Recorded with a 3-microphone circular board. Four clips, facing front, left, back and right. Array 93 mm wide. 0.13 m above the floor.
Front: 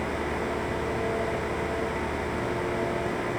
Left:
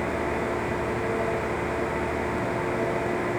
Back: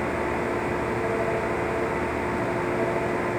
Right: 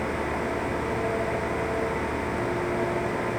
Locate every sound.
Only background noise.